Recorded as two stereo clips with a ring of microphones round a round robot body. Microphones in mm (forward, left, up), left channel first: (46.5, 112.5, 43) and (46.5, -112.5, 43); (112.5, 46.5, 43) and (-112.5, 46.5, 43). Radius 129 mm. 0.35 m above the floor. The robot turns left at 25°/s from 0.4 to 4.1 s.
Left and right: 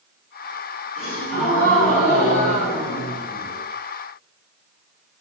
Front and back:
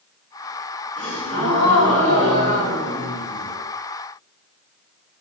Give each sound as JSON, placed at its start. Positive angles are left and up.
{"t": 1.0, "sound": "a gasp", "azimuth_deg": -80, "distance_m": 1.8}